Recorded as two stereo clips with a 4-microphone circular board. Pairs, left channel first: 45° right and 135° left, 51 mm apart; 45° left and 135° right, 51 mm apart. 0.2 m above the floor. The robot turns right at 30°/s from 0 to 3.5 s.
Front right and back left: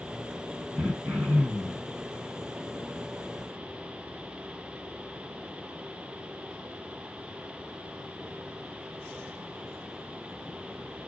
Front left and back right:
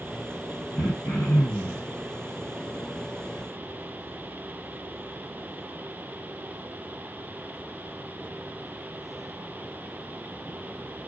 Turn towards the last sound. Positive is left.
turn(degrees=135)